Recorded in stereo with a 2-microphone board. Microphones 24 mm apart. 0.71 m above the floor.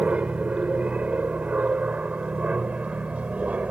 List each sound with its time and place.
0.0 s an aircraft: 65° right (ahead or behind)